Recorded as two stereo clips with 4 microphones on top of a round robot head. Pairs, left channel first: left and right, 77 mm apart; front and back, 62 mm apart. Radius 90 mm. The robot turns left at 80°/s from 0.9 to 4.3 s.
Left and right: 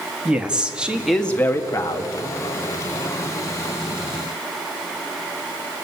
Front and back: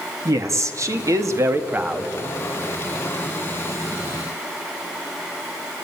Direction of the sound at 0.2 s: 165° right.